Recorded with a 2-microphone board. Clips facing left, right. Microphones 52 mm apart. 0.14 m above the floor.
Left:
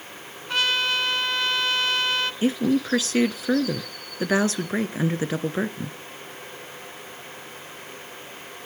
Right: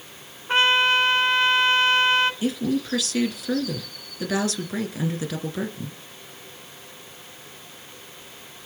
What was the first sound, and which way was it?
A trumpet, 30° right (ahead or behind).